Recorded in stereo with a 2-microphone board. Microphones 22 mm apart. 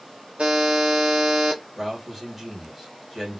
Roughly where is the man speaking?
Centre.